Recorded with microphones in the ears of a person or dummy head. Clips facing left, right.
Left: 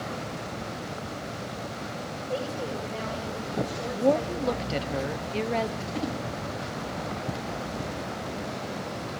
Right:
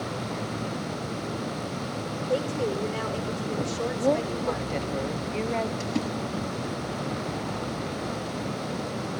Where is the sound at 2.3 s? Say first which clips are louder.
Right 5 dB; 55° right (ahead or behind), 5.5 m; by 4.9 s 80° right, 5 m.